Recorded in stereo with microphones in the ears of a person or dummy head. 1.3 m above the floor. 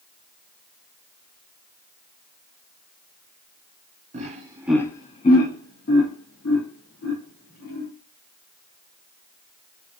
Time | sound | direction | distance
4.1 | laughter | 35° right (ahead or behind) | 0.6 m